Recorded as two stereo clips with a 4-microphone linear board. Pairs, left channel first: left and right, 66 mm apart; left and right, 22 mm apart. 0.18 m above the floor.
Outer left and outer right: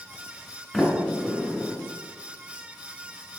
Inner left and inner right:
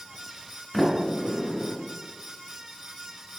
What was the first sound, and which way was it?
A sliding door, 10° left (ahead or behind).